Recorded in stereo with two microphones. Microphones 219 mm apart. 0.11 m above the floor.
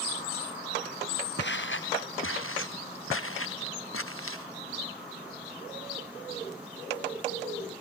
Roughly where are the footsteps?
Left.